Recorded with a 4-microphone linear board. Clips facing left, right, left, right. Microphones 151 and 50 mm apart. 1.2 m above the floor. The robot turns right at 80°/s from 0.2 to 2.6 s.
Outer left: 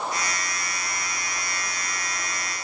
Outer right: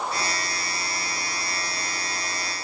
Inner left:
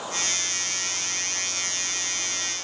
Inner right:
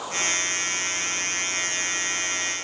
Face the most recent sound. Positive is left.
No sound to turn to.